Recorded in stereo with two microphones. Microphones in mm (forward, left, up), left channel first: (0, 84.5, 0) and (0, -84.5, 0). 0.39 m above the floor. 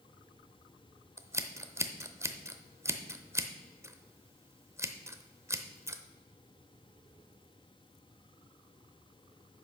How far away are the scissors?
About 0.7 m.